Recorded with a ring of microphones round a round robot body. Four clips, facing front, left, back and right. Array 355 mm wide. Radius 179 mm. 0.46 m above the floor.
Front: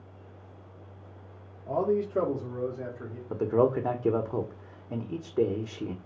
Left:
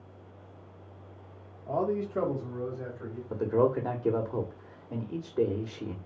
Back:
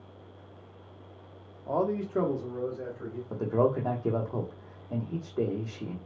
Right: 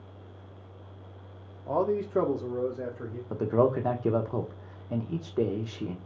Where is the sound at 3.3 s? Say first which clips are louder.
Right 1 dB, front 2 dB; 50° right, 0.9 m.